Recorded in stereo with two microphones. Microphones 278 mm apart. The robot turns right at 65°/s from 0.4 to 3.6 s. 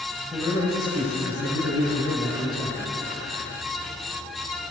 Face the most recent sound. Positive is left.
turn(degrees=-160)